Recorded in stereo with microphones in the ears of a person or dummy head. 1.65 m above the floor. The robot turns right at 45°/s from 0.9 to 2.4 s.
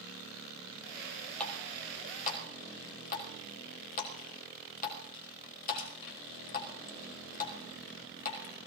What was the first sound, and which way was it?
A running tap, 5° left (ahead or behind).